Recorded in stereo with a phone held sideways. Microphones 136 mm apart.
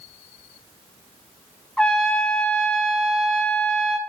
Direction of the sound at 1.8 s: 5° left (ahead or behind).